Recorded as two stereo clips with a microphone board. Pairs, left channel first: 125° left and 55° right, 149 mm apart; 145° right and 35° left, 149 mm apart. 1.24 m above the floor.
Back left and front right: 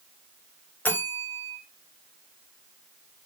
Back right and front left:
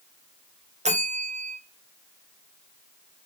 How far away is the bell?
About 0.7 m.